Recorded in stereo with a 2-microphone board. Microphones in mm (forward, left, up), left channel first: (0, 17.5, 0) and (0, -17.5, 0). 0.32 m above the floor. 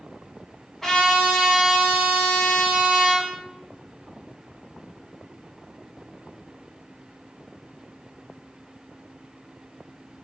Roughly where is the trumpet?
Centre.